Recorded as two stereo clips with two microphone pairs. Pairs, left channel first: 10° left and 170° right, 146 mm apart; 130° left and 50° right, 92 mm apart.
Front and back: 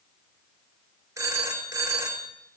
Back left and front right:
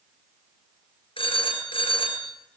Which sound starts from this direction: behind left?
A phone ringing, at 1.2 s.